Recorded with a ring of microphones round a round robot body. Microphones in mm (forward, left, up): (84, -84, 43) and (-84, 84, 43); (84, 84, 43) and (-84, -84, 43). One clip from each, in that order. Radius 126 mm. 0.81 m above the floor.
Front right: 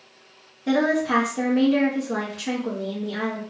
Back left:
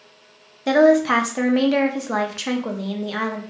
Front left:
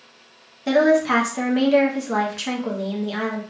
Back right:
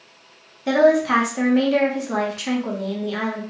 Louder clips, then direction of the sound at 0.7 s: Back left 7 dB, back right 1 dB; 130° left.